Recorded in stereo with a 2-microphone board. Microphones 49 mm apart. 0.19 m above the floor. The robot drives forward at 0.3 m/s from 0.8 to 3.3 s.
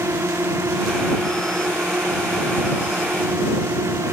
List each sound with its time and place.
0.0 s a drone: 80° right